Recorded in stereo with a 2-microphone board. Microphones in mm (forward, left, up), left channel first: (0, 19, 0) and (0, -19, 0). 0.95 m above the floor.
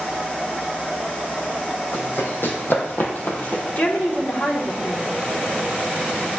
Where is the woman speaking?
45° left (ahead or behind), 2 m.